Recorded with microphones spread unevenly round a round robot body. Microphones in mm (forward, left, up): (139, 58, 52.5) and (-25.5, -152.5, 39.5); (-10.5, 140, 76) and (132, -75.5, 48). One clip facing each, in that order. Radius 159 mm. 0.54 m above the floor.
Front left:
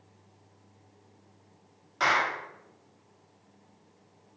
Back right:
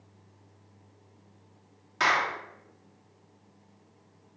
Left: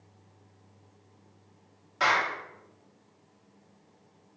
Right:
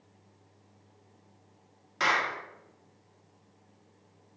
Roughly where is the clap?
Right.